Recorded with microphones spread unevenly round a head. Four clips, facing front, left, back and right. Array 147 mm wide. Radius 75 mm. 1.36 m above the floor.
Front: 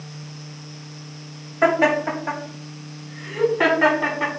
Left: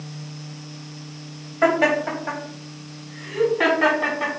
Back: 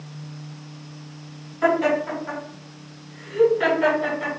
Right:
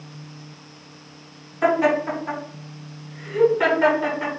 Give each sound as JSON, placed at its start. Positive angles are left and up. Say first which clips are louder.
{"t": 1.6, "sound": "laughter", "louder": "even, front 2 dB", "azimuth_deg": 35, "distance_m": 3.5}